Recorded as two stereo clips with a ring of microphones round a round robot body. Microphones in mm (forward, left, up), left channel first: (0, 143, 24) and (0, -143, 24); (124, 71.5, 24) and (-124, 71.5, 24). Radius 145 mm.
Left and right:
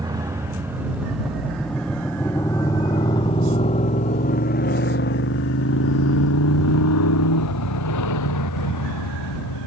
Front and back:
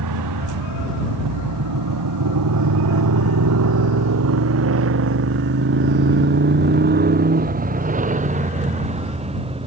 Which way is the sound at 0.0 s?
170° right.